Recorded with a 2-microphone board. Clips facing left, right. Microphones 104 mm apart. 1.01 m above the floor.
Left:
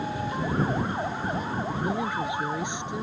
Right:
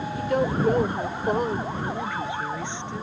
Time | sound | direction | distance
0.1 | a woman speaking | 75° right (ahead or behind) | ?
1.7 | a woman speaking | 15° left (ahead or behind) | ?